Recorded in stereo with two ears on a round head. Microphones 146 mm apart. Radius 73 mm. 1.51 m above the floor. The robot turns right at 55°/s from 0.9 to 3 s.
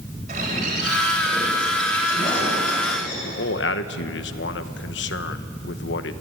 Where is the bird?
50° right, 8 m; by 3.1 s 65° left, 8 m.